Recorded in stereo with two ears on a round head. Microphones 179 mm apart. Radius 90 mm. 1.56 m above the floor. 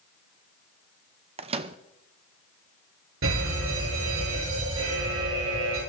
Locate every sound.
1.4 s a microwave: 30° right (ahead or behind), 0.8 m
3.2 s a fire alarm: 80° right, 9.5 m